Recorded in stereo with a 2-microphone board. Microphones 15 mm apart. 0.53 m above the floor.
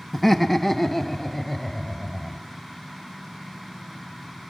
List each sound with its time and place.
0.1 s laughter: 10° left (ahead or behind), 0.8 m